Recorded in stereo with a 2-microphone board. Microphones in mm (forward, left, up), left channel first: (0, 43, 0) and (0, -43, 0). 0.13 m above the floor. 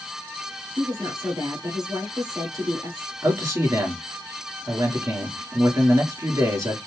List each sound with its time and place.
0.8 s a woman speaking: 50° right (ahead or behind), 2.5 m
3.2 s a man speaking: 40° right (ahead or behind), 2 m